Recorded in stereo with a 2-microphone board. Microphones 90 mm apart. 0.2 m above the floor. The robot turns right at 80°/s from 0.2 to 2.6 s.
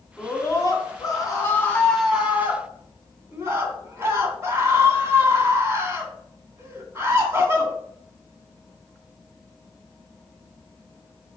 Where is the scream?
35° left, 2 m; by 7.7 s 135° right, 2 m.